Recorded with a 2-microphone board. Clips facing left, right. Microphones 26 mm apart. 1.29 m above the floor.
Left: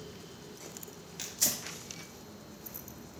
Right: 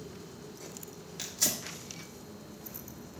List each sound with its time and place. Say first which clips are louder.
1.2 s tearing paper: right 1 dB; centre (ahead or behind), 1.6 m